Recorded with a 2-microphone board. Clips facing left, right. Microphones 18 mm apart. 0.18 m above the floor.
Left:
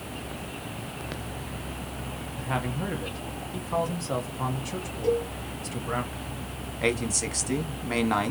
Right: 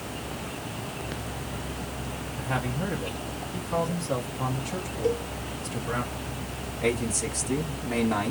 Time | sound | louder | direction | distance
2.4 | a man speaking | even | 5° left (ahead or behind) | 1.0 m
5.0 | a cowbell | left 2 dB | centre (ahead or behind) | 1.8 m
6.8 | a man speaking | even | 35° left (ahead or behind) | 1.2 m